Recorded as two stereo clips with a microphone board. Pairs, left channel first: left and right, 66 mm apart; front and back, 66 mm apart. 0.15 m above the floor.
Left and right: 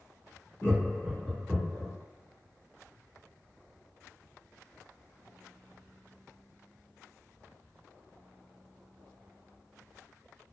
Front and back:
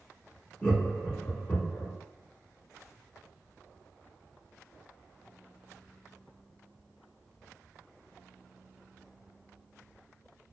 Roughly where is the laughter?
Ahead left.